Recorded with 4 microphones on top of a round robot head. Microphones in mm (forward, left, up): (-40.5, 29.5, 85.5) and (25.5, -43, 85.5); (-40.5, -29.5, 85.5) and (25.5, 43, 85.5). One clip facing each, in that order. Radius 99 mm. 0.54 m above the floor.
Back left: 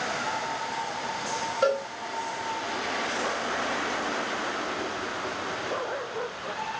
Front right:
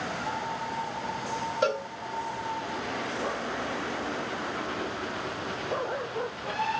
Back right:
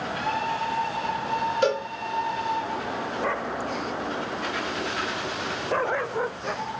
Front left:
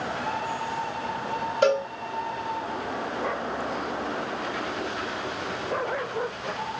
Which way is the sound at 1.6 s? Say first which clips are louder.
Back left 3 dB, front left 4 dB; 45° left.